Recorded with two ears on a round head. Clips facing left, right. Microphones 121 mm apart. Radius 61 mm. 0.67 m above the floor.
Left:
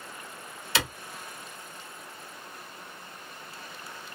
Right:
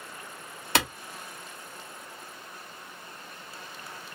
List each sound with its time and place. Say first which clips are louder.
0.8 s a clap: right 4 dB; 40° right (ahead or behind), 1.1 m